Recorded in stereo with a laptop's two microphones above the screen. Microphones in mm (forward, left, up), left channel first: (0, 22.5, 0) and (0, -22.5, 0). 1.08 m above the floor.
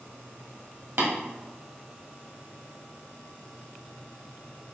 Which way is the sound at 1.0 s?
70° right (ahead or behind).